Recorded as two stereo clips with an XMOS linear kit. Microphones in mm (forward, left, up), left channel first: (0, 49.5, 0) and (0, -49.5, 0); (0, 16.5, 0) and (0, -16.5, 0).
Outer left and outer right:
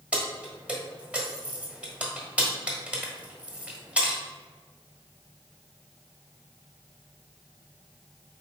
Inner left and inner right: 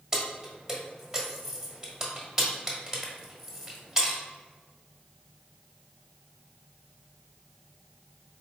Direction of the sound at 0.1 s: 15° right (ahead or behind).